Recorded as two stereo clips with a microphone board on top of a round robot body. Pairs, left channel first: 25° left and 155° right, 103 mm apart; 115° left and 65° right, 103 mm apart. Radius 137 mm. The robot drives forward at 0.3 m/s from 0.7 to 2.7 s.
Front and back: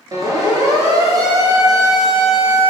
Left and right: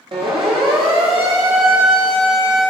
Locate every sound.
0.1 s a siren: 105° right, 9.5 m